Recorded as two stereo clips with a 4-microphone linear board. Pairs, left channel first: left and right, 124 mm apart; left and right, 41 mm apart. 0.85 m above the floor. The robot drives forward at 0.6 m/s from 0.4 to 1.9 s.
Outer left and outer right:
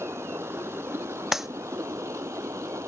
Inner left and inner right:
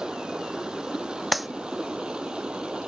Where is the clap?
5° right (ahead or behind).